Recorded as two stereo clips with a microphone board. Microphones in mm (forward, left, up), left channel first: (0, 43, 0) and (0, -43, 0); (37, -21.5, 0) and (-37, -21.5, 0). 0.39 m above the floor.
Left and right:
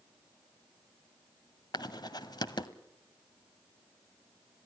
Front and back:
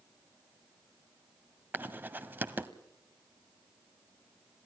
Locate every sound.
1.7 s writing: 120° left, 1.2 m